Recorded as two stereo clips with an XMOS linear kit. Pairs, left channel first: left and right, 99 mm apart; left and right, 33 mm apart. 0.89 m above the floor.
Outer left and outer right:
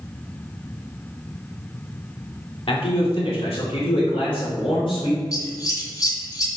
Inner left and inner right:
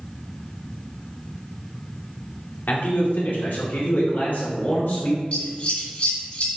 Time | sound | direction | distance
2.7 | a man speaking | 75° left (ahead or behind) | 2 m
5.3 | scissors | 40° left (ahead or behind) | 1.9 m